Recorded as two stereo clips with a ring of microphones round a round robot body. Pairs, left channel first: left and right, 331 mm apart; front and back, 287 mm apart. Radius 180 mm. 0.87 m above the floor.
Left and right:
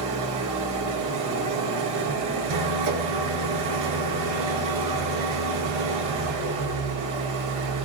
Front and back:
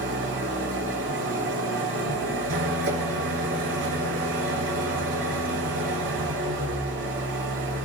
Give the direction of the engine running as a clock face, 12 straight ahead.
4 o'clock.